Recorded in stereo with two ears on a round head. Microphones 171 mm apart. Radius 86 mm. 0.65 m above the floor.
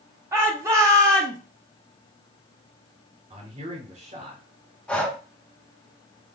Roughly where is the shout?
Centre.